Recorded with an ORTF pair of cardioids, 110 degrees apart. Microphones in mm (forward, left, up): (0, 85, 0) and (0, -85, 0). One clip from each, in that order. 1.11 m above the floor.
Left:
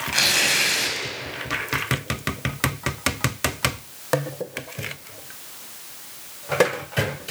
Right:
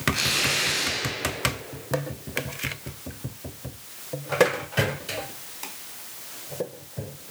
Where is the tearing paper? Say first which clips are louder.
Left 5 dB; 50° left, 8 m.